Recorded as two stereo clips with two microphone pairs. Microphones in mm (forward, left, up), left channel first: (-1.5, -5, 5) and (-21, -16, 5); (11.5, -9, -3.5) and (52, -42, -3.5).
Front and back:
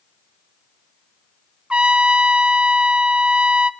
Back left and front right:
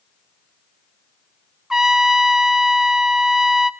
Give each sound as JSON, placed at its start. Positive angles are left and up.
{"t": 1.7, "sound": "a trumpet", "azimuth_deg": -115, "distance_m": 1.1}